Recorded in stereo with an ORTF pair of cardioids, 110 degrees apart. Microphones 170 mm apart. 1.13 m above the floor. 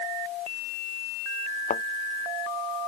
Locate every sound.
1.7 s a thud: 50° left